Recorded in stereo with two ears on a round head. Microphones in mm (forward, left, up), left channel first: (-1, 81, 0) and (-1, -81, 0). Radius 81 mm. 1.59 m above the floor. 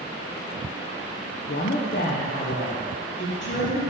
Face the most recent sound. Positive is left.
turn(degrees=70)  # may be behind; listen again after turning